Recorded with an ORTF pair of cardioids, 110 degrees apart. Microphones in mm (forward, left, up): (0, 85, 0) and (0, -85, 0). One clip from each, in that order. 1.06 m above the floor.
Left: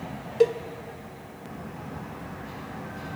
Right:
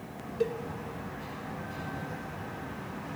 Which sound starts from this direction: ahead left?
A cowbell, at 0.4 s.